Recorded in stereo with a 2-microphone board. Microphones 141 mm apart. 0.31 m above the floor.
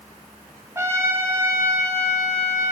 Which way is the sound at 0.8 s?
20° right (ahead or behind).